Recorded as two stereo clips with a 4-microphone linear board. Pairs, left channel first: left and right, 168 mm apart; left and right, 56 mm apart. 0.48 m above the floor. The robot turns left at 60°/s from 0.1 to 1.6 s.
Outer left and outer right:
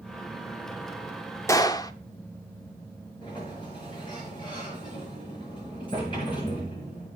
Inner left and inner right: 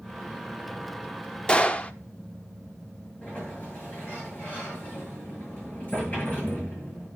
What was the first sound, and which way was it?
A gunshot, 15° left (ahead or behind).